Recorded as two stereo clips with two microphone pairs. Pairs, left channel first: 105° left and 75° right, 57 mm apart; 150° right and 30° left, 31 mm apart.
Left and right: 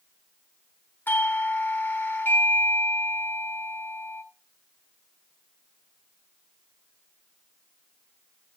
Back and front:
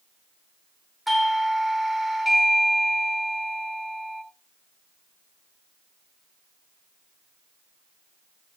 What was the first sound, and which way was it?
A doorbell, 110° left.